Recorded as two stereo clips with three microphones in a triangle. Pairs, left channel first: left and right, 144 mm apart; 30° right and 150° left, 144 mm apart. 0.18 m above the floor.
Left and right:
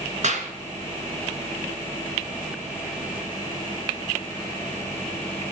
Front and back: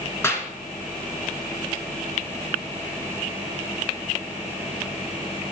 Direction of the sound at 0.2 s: 100° right.